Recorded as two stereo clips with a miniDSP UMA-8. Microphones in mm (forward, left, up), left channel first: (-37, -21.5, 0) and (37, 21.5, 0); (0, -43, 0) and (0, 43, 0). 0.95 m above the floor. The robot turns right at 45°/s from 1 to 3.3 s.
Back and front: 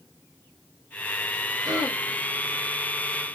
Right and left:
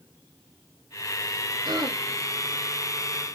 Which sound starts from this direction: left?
Throat clearing, at 1.6 s.